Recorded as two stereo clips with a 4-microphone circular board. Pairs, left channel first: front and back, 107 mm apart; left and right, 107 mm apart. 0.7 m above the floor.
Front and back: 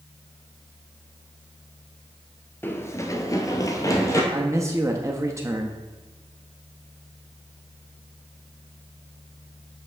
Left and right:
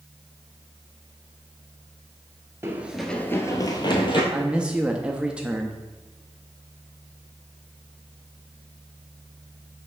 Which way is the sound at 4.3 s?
160° right.